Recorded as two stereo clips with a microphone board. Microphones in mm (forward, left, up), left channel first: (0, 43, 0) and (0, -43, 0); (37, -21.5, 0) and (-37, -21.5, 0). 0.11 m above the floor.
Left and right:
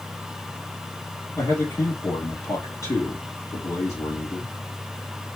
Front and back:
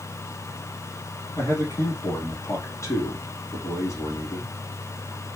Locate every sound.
1.4 s a man speaking: 40° left, 3 m